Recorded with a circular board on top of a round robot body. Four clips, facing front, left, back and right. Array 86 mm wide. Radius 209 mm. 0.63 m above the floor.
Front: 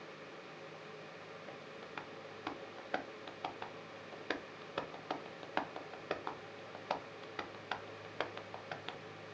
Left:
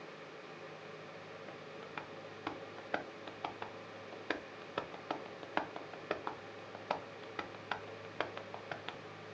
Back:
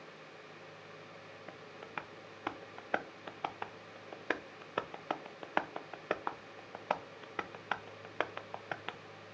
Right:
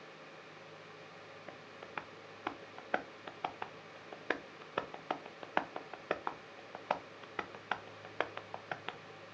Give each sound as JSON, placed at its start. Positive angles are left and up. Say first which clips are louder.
{"t": 1.5, "sound": "tapping", "louder": "right 2 dB, back 4 dB", "azimuth_deg": -145, "distance_m": 0.8}